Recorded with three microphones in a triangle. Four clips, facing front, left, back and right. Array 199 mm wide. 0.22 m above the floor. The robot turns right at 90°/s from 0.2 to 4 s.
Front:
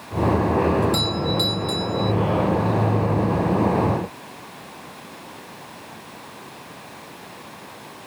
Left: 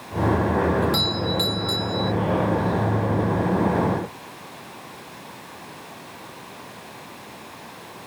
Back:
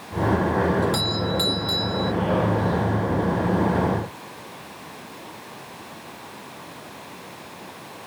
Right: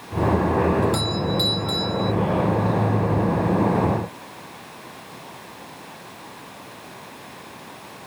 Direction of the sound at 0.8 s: 95° left.